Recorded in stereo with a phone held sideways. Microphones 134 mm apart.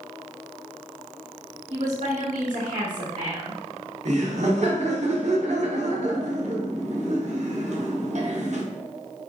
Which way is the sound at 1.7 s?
55° right (ahead or behind).